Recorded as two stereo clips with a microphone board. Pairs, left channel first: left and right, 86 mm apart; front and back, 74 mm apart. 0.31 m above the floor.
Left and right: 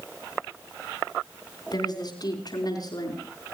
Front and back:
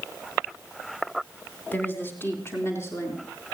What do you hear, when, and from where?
1.7 s a woman speaking: 65° left, 3 m; by 3.2 s 50° left, 5.5 m